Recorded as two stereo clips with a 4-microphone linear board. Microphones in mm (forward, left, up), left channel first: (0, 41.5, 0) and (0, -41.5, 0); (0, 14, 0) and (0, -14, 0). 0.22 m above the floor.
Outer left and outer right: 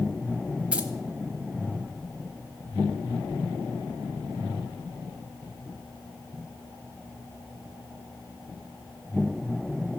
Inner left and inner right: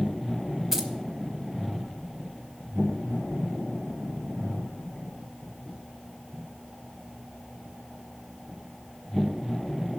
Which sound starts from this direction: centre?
Keys jangling, at 0.7 s.